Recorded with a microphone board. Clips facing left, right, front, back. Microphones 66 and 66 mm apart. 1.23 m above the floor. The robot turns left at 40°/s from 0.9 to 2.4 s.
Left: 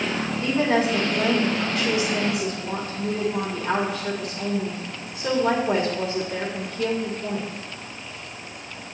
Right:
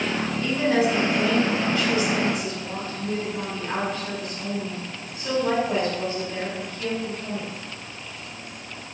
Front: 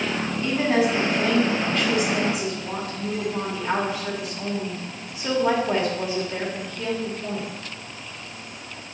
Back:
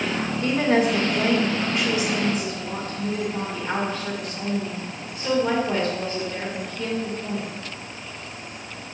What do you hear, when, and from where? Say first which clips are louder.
0.4 s a woman speaking: even, back 1 dB; 140° left, 2.0 m; by 7.5 s 80° left, 2.0 m